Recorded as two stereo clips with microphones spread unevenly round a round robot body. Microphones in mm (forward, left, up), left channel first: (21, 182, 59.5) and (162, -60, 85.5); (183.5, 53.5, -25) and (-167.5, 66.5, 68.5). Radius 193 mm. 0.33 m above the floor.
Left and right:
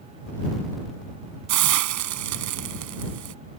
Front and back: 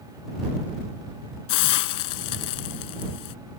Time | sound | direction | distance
1.5 | a hiss | 40° right | ?